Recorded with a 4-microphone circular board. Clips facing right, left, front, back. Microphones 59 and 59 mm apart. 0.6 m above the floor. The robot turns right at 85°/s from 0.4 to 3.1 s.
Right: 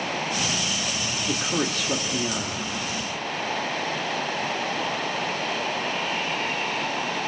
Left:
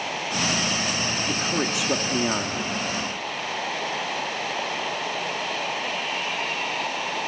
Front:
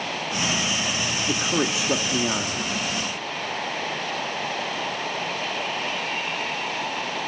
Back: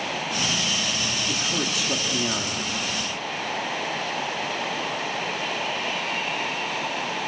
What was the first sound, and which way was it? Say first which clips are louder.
A man speaking: right 2 dB, front 3 dB; 20° right.